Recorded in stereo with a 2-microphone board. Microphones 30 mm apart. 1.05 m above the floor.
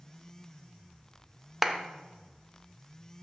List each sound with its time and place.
1.6 s a clap: 10° right (ahead or behind), 0.6 m